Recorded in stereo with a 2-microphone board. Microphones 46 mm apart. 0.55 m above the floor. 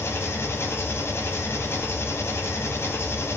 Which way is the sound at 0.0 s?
75° left (ahead or behind).